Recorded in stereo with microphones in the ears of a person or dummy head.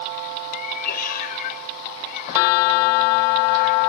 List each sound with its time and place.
0.5 s a cat meowing: 55° left (ahead or behind)